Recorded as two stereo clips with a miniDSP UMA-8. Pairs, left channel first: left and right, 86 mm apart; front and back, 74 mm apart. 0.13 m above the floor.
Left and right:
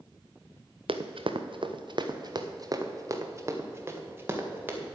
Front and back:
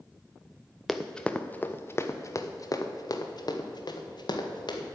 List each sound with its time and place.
0.9 s running footsteps: 90° right, 0.9 m; by 5.0 s 20° right, 2 m